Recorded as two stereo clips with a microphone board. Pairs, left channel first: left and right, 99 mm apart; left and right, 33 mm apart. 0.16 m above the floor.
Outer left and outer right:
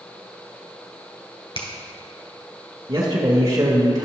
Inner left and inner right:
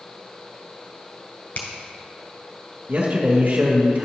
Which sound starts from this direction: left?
A finger snap, at 1.6 s.